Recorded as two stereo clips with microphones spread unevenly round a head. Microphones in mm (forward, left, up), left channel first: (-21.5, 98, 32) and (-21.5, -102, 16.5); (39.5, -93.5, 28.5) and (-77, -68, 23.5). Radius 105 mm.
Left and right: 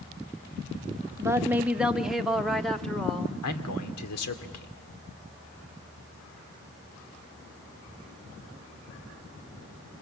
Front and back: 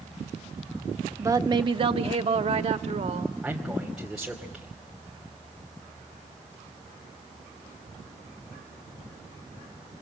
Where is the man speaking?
80° left, 2.5 m.